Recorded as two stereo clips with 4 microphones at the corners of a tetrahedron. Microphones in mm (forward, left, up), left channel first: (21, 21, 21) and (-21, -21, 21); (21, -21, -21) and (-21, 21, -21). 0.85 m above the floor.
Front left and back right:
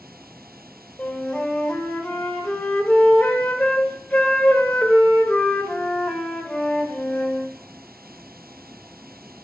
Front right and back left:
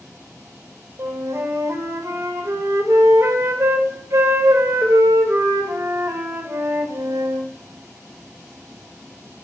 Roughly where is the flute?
Behind left.